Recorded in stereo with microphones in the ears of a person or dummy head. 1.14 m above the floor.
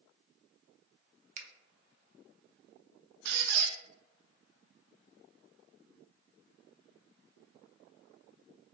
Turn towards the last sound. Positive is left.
turn(degrees=-65)  # may be behind; listen again after turning